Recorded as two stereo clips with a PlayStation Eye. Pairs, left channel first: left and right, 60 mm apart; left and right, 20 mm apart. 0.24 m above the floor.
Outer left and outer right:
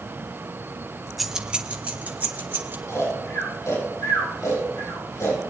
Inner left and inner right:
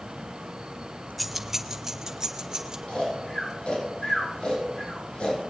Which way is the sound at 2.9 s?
60° left (ahead or behind).